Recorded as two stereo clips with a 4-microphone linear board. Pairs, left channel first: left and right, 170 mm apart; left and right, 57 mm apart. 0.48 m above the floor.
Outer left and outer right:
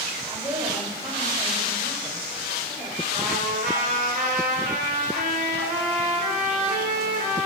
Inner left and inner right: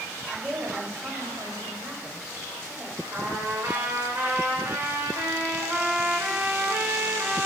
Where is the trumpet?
50° right (ahead or behind), 1.7 m.